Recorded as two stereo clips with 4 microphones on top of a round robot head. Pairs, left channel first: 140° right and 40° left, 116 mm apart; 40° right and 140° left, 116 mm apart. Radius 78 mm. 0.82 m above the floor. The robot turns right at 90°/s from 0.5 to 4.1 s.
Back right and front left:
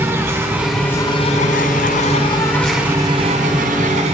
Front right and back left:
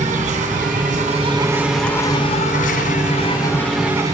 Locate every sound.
0.0 s an insect: 115° left, 3.5 m; by 4.1 s 75° left, 3.5 m